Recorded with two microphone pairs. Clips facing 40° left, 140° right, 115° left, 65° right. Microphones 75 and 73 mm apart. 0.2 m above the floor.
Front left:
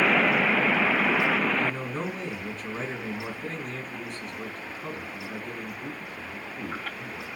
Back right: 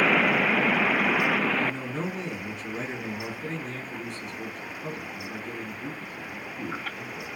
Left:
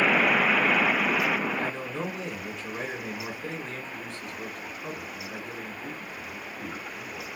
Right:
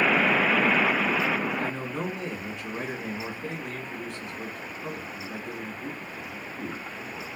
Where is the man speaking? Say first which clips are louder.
Even, right 1 dB; 5° left, 2 m.